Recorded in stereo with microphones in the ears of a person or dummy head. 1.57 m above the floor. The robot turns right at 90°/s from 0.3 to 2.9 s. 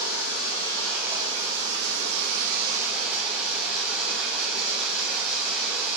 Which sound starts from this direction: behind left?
Running water, at 0.0 s.